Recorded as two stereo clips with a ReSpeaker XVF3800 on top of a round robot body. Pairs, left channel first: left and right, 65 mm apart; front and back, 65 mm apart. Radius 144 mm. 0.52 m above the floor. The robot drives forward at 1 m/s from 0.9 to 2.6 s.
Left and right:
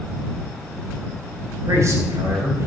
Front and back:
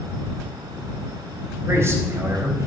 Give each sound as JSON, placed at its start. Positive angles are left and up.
{"t": 1.7, "sound": "a man speaking", "azimuth_deg": -130, "distance_m": 4.5}